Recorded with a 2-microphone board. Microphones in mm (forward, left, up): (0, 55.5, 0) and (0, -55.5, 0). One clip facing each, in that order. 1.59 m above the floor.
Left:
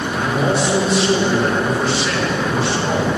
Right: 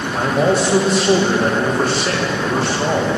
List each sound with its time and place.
0.1 s a man speaking: 45° right (ahead or behind), 2.5 m